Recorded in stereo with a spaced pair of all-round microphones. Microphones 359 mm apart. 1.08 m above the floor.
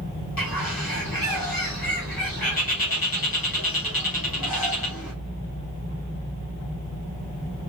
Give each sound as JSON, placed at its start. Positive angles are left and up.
{"t": 0.4, "sound": "a bird", "side_deg": 75, "distance_m": 2.0}